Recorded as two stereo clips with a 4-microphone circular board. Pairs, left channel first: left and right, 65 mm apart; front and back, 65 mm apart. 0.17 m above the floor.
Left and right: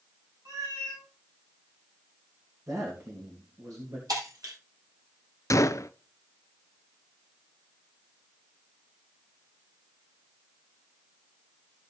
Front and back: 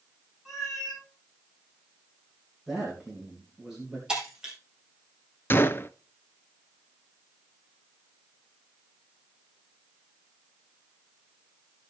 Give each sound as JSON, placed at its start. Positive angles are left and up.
{"t": 0.5, "sound": "a cat meowing", "azimuth_deg": -100, "distance_m": 9.0}
{"t": 2.7, "sound": "a man speaking", "azimuth_deg": -100, "distance_m": 3.0}
{"t": 4.1, "sound": "breaking glass", "azimuth_deg": -105, "distance_m": 4.0}
{"t": 5.5, "sound": "a gunshot", "azimuth_deg": 55, "distance_m": 0.6}